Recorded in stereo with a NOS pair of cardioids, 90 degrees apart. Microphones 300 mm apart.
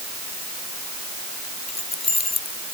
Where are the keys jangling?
20° left.